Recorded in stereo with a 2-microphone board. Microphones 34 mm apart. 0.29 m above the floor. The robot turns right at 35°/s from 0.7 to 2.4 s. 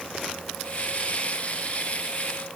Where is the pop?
No pop in this recording.